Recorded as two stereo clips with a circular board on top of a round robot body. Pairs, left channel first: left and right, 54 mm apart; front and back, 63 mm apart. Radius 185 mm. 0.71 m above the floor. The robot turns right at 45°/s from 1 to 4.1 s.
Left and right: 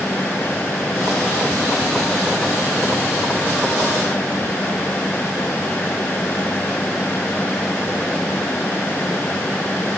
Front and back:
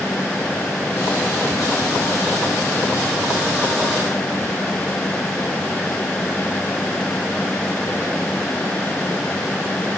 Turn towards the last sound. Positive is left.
No sound to turn to.